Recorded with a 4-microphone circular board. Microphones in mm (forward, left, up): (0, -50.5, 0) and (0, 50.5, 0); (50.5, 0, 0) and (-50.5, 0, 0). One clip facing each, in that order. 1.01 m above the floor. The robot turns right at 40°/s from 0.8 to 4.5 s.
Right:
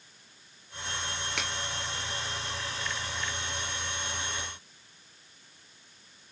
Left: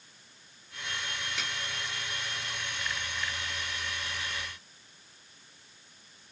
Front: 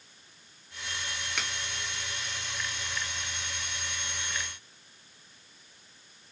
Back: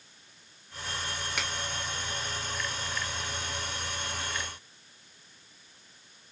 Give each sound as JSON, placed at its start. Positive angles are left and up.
{"t": 1.4, "sound": "a finger snap", "azimuth_deg": -95, "distance_m": 2.5}